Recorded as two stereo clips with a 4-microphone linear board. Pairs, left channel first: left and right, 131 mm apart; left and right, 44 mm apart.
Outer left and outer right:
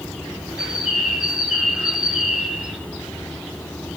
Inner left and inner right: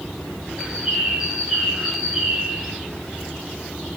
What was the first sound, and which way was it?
A bird, 10° right (ahead or behind).